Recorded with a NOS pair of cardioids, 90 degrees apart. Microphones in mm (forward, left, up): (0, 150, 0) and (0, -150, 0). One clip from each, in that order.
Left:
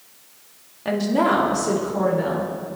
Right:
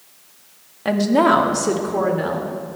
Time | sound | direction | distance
0.8 | a woman speaking | 30° right | 2.5 m